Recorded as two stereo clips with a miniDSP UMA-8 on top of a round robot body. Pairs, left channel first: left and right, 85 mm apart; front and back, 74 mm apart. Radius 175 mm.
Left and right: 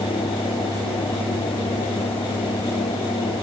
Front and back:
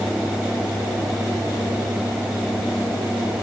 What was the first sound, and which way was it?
Only background noise.